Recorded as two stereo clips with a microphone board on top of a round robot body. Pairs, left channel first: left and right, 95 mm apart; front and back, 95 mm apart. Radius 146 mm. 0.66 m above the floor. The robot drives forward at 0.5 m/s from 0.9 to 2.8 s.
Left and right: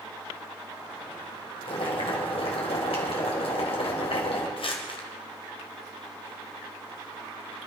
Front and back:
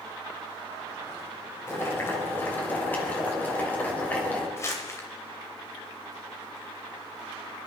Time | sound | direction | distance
1.7 | boiling | 65° left | 3 m
4.6 | crumpling | 60° left | 2 m